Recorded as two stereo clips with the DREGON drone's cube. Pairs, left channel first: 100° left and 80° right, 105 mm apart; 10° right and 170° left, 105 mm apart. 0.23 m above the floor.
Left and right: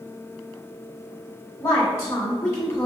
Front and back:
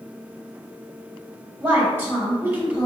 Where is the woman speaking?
130° left, 1.8 m.